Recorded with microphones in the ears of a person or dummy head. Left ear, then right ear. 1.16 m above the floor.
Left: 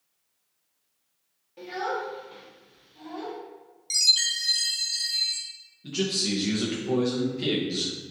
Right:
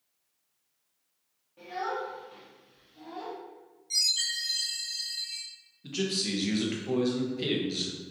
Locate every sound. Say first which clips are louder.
1.6 s a child speaking: left 3 dB; 30° left (ahead or behind), 0.9 m; by 3.4 s centre (ahead or behind), 1.6 m
3.9 s a chime: left 6 dB; 35° left (ahead or behind), 0.7 m
5.8 s a man speaking: left 3 dB; 15° right (ahead or behind), 0.6 m